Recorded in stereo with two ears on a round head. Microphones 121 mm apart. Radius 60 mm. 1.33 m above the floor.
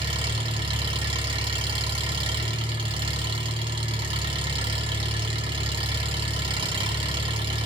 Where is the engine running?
40° right (ahead or behind), 3.5 m.